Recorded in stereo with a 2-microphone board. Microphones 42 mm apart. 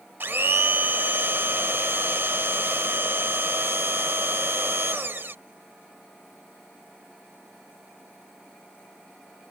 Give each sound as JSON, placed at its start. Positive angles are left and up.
{"t": 0.2, "sound": "a blender", "side_deg": -55}